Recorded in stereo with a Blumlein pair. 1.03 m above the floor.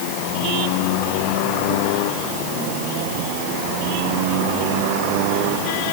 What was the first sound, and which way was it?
Only background noise.